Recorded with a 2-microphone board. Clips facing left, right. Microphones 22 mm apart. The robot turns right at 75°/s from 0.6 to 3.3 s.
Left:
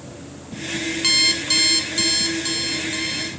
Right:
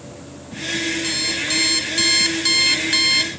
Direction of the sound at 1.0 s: 115° left.